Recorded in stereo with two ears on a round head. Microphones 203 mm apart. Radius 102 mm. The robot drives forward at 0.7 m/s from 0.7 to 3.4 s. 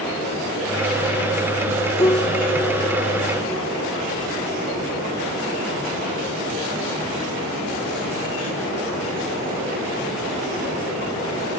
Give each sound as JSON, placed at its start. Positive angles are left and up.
{"t": 2.0, "sound": "a piano", "side_deg": 15}